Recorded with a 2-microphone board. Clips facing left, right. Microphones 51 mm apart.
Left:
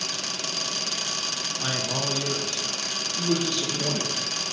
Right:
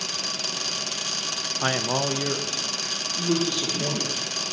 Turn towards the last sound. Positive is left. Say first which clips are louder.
# right 1 dB
turn(degrees=-10)  # may be behind; listen again after turning